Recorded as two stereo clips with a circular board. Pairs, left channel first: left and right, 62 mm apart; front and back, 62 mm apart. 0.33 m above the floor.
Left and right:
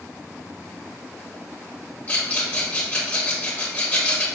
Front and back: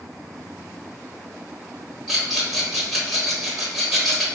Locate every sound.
2.1 s a rattle: 90° left, 1.5 m